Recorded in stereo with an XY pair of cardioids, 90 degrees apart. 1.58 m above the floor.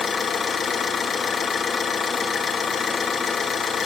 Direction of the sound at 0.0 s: 60° left.